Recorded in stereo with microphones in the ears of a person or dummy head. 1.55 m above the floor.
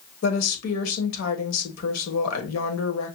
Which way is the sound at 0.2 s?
85° left.